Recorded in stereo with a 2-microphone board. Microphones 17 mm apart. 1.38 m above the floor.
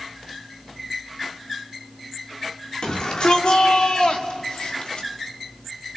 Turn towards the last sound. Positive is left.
turn(degrees=85)